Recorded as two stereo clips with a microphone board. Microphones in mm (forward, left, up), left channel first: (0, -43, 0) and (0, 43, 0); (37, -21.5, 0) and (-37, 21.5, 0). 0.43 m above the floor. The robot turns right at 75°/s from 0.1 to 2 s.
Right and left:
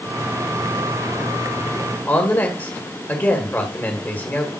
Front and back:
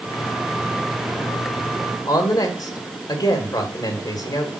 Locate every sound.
2.1 s a woman speaking: 30° right, 1.9 m